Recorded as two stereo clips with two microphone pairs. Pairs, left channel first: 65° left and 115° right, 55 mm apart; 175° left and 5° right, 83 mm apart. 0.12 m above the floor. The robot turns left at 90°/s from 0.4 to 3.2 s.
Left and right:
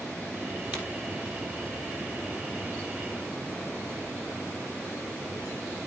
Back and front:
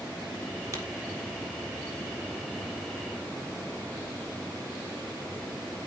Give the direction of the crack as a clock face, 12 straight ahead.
2 o'clock.